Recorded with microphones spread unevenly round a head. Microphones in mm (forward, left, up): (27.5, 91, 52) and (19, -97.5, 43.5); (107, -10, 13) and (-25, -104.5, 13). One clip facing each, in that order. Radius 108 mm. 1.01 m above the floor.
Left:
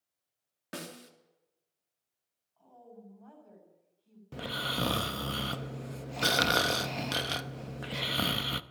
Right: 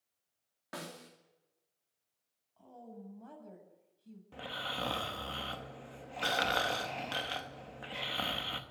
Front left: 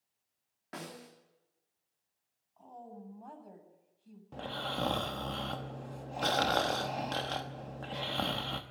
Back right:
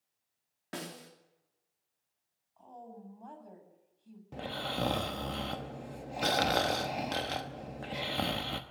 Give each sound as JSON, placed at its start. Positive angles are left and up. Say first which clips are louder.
{"t": 0.7, "sound": "a snare drum", "louder": "left 3 dB, back right 2 dB", "azimuth_deg": 150, "distance_m": 2.5}
{"t": 2.6, "sound": "a woman speaking", "louder": "right 2 dB, even", "azimuth_deg": -50, "distance_m": 8.0}
{"t": 4.3, "sound": "snoring", "louder": "left 6 dB, back right 1 dB", "azimuth_deg": 135, "distance_m": 0.8}